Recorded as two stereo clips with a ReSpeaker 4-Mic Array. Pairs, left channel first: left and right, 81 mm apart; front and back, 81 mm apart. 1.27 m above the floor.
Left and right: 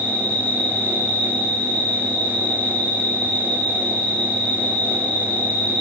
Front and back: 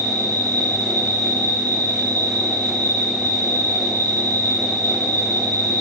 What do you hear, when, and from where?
0.0 s an insect: straight behind, 1.9 m